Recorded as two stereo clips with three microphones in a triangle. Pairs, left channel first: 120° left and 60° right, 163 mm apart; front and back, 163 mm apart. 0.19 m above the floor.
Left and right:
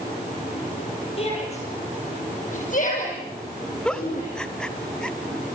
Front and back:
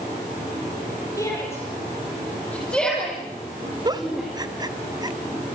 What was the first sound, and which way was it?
A shout, 70° left.